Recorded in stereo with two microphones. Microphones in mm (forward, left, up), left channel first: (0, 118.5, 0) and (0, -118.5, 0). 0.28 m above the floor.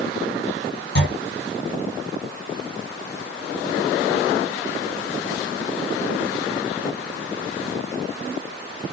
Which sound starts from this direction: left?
A clunk, at 0.9 s.